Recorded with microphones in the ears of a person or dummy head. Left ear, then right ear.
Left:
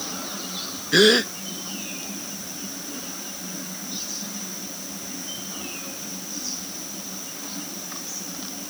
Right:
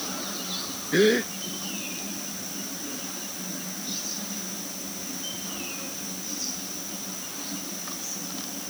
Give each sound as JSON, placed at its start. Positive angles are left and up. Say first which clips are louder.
{"t": 0.9, "sound": "a gasp", "louder": "left 5 dB", "side_deg": 35}